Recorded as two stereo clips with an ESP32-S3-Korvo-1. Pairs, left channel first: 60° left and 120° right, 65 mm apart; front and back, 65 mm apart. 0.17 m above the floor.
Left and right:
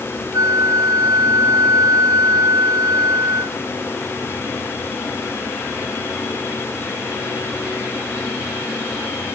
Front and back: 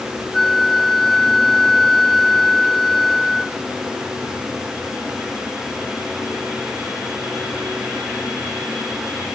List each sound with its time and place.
0.3 s a flute: 85° right